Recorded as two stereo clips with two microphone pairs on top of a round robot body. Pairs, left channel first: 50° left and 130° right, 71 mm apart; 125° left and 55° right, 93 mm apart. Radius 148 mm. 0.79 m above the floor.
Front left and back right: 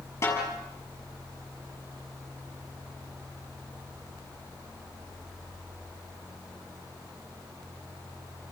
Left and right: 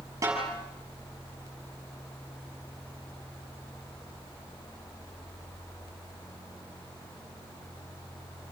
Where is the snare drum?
5° left, 6 m.